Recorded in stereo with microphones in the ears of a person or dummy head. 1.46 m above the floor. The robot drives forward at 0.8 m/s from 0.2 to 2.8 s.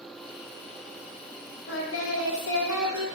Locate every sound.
1.7 s singing: 65° left (ahead or behind), 1.2 m